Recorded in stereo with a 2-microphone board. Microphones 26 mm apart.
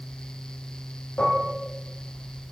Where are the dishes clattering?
80° left, 6 m.